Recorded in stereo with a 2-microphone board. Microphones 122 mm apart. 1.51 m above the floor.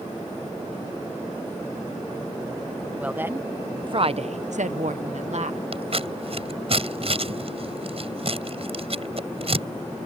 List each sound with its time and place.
3.0 s a woman speaking: 10° right (ahead or behind); by 5.6 s 65° right (ahead or behind)
5.7 s scissors: 55° right (ahead or behind)